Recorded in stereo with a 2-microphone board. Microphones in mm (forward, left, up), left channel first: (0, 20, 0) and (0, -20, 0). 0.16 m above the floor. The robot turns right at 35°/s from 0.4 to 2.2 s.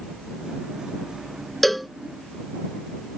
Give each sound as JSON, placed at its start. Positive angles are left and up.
{"t": 1.6, "sound": "a cowbell", "side_deg": 5}